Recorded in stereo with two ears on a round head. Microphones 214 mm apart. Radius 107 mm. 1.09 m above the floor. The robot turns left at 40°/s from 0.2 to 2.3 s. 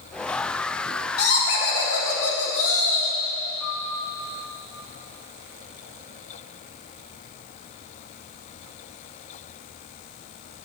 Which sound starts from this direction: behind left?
Laughter, at 1.2 s.